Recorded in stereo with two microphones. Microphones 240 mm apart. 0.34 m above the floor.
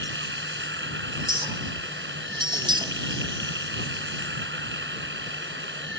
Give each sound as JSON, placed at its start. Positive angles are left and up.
{"t": 0.0, "sound": "running water", "side_deg": -50}
{"t": 1.2, "sound": "a clink", "side_deg": -20}